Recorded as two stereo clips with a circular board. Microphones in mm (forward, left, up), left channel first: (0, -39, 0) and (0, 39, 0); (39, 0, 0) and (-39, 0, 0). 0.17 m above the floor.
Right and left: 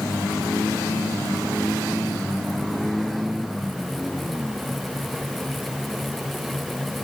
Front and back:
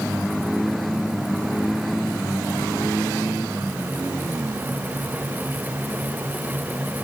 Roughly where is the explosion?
No explosion in this recording.